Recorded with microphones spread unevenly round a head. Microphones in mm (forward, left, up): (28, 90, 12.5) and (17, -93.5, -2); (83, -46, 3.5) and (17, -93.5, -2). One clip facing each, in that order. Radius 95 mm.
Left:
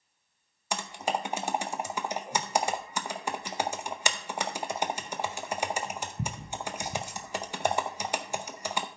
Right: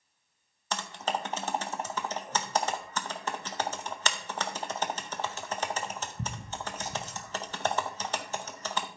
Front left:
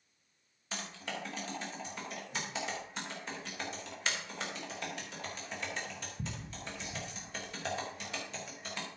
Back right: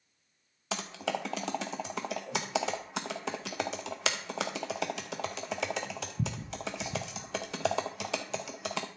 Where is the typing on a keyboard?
165° left, 0.5 m.